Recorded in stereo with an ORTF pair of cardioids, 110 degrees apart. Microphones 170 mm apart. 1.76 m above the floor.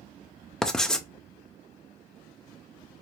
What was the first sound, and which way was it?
Writing, 5° left.